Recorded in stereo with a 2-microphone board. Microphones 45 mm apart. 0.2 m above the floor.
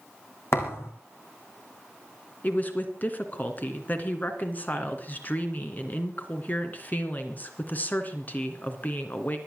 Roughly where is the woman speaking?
Left.